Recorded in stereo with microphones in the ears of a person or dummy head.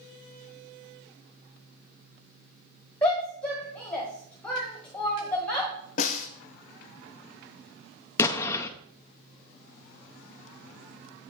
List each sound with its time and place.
3.0 s a shout: 5° left (ahead or behind), 1.2 m
6.0 s a snare drum: 40° left (ahead or behind), 0.7 m
8.2 s an explosion: 20° left (ahead or behind), 0.6 m